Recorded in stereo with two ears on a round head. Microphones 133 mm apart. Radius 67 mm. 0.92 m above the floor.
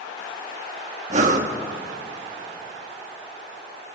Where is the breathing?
55° right (ahead or behind), 1.9 m.